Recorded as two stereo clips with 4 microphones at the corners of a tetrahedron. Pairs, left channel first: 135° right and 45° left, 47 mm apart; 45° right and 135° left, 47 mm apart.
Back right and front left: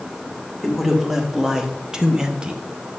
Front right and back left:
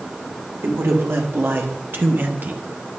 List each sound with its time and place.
0.6 s a man speaking: 125° left, 1.7 m; by 2.6 s 105° left, 0.9 m